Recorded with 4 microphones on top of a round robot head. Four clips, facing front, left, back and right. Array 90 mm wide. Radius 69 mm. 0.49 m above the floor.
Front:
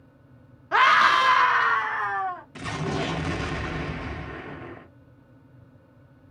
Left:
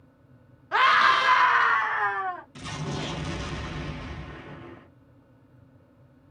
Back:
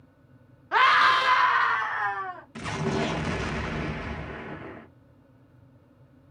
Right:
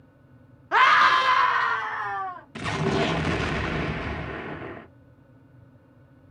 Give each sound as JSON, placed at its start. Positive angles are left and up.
{"t": 0.7, "sound": "a scream", "azimuth_deg": -65, "distance_m": 0.7}
{"t": 2.5, "sound": "an explosion", "azimuth_deg": -90, "distance_m": 0.6}